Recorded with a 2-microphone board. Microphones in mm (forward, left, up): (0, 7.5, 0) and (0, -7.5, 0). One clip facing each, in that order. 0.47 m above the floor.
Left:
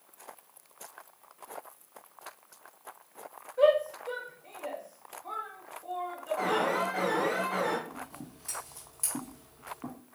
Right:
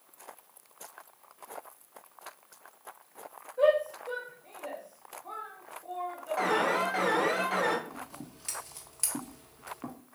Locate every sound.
3.6 s a shout: 30° left (ahead or behind), 2 m
6.4 s an alarm: 50° right (ahead or behind), 1.1 m
7.9 s scissors: 45° right (ahead or behind), 1.4 m